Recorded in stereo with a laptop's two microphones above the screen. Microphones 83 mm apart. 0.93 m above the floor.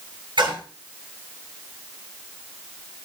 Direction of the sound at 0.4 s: 70° right (ahead or behind).